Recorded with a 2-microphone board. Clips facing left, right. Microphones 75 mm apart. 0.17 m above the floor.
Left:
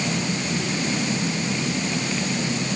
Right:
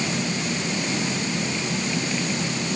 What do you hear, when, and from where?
Only background noise.